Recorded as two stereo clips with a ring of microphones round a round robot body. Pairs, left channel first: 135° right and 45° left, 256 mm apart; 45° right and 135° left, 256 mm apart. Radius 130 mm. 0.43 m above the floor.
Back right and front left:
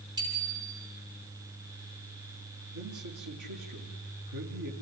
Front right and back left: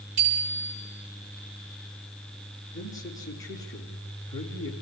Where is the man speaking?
30° left, 5 m.